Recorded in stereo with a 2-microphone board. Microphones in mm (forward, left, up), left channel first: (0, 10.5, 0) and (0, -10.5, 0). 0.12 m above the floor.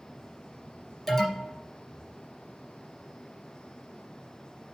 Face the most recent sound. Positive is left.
turn(degrees=15)  # may be behind; listen again after turning